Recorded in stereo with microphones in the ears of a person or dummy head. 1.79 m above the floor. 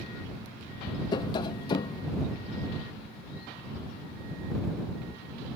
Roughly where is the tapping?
Left.